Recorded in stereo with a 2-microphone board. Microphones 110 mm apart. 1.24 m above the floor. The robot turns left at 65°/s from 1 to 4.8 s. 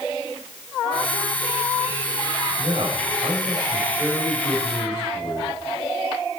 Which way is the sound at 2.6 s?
80° right.